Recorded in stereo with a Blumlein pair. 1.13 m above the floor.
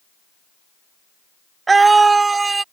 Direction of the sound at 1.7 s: 15° right.